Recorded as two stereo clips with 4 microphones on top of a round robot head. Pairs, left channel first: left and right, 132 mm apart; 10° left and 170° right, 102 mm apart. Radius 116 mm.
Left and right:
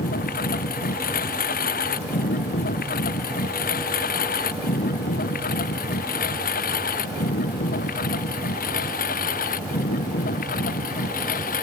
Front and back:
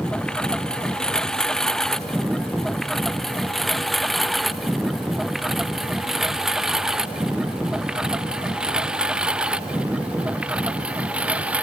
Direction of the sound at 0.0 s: 90° left.